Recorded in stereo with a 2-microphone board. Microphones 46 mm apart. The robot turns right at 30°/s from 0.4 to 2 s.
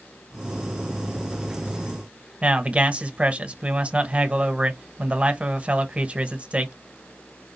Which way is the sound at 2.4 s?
25° right (ahead or behind).